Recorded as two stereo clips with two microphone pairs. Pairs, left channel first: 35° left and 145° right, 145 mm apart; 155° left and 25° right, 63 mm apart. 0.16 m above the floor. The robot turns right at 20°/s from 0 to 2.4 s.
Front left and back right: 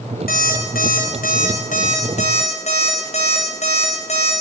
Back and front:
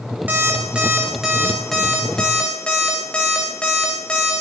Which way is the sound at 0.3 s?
35° left.